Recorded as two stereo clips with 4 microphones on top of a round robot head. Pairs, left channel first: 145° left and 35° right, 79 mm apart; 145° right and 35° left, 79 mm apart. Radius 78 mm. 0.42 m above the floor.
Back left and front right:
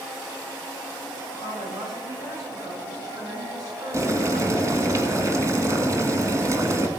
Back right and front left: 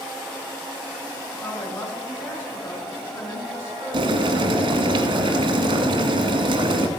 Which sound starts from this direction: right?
A woman speaking, at 1.4 s.